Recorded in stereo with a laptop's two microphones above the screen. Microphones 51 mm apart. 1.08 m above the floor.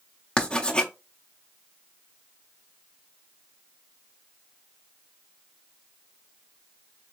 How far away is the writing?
About 0.5 m.